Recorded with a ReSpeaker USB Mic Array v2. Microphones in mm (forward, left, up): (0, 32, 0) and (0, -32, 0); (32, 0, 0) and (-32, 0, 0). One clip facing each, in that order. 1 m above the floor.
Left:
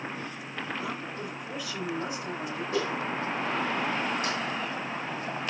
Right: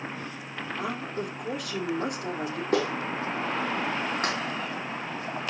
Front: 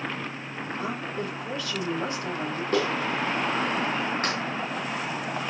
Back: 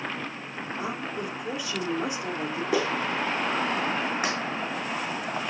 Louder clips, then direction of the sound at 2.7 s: Right 3 dB, front 1 dB; 100° right.